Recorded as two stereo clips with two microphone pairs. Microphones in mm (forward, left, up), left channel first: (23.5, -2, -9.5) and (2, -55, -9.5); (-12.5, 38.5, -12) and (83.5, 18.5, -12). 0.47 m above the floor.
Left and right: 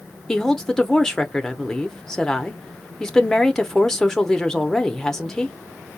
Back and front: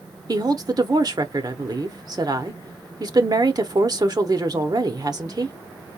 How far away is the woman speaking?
About 0.9 m.